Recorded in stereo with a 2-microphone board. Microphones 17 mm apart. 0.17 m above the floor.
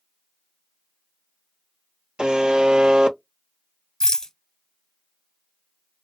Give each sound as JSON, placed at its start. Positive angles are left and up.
{"t": 2.2, "sound": "a buzzer", "side_deg": -65, "distance_m": 0.7}
{"t": 4.0, "sound": "a rattle", "side_deg": 40, "distance_m": 0.7}